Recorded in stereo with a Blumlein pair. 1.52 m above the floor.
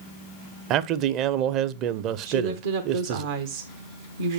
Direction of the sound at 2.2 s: 70° right.